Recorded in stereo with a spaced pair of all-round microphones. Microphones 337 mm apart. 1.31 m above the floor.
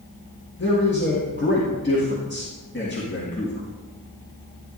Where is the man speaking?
35° left (ahead or behind), 1.7 m.